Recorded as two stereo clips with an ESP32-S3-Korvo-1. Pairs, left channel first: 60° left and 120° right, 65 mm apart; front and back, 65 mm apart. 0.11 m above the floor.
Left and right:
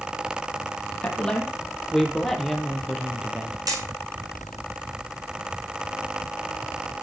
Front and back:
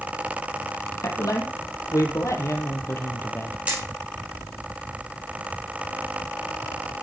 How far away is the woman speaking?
About 4 m.